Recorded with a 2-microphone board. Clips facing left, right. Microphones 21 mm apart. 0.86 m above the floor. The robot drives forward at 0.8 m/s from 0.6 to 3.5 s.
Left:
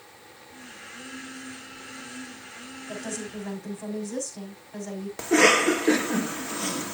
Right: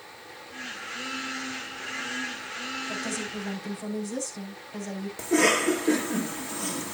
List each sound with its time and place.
2.9 s a woman speaking: 10° left (ahead or behind), 4.5 m
5.2 s a cough: 30° left (ahead or behind), 1.4 m